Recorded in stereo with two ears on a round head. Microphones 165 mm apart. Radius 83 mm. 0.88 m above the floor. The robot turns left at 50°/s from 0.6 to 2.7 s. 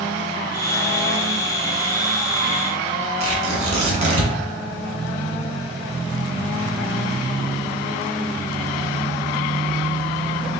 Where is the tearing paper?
40° right (ahead or behind), 1.6 m.